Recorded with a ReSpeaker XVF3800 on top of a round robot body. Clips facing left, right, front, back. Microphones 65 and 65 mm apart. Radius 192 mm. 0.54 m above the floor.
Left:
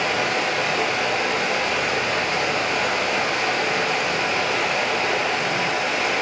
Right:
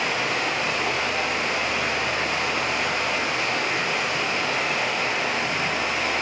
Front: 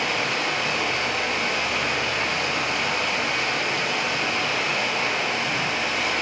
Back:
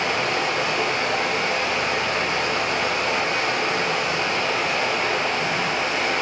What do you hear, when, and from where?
0.0 s running water: 120° left, 6 m